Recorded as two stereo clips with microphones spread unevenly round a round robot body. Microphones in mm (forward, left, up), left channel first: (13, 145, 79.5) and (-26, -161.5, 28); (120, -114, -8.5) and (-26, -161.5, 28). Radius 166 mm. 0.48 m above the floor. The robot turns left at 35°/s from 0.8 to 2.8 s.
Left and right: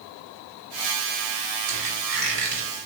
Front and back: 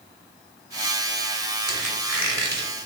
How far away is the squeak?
About 1.7 m.